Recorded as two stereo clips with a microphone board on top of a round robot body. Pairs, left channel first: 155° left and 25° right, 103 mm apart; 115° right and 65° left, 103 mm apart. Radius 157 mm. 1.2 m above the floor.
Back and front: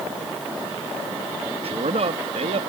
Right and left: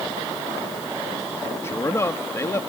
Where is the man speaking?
45° right.